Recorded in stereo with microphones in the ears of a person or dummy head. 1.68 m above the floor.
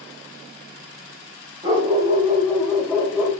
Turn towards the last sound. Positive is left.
turn(degrees=0)  # may be behind; listen again after turning